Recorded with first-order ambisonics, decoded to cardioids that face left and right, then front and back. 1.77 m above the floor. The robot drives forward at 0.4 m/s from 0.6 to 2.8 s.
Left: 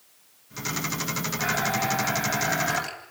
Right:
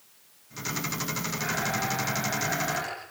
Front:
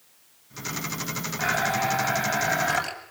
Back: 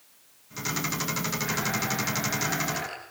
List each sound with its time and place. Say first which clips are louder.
1.4 s a blender: left 4 dB, front 9 dB; 20° left, 8 m